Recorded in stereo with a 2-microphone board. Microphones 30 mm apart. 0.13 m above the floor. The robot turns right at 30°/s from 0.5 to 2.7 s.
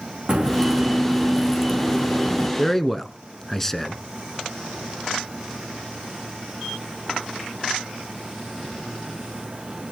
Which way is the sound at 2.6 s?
10° left (ahead or behind).